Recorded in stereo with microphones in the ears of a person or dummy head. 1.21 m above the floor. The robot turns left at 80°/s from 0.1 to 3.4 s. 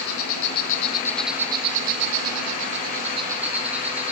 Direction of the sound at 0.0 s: 90° left.